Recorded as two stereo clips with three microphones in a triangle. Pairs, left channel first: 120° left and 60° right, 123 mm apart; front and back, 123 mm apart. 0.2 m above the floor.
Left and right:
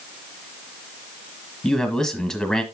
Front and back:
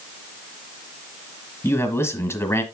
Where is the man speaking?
40° left, 1.4 m.